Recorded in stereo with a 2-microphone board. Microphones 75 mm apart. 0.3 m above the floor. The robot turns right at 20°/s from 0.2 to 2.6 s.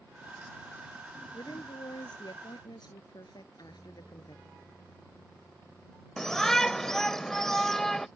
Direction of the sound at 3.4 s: 50° left (ahead or behind).